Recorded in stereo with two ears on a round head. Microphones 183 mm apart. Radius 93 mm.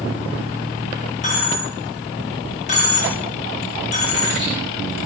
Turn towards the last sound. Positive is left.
turn(degrees=35)  # may be behind; listen again after turning